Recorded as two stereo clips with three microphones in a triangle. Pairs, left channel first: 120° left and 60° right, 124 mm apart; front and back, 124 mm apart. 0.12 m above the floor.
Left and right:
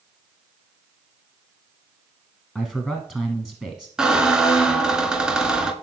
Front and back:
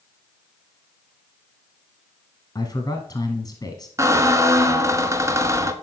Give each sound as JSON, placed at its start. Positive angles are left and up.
{"t": 2.5, "sound": "a man speaking", "azimuth_deg": 20, "distance_m": 1.2}
{"t": 4.0, "sound": "a squeak", "azimuth_deg": -140, "distance_m": 0.7}